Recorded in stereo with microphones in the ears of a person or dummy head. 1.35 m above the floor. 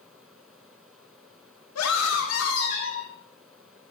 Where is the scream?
85° left, 1.9 m; by 3.1 s 75° left (ahead or behind), 2.5 m.